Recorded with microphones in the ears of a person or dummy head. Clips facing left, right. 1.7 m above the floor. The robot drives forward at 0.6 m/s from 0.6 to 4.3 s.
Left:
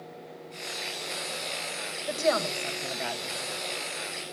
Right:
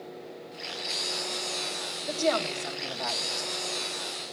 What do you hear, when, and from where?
2.1 s a woman speaking: 45° left (ahead or behind), 1.7 m; by 3.7 s 30° left (ahead or behind), 2.5 m